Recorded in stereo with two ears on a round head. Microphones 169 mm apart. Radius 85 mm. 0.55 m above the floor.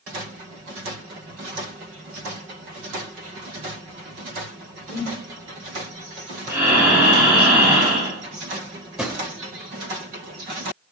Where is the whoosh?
55° left (ahead or behind), 0.7 m.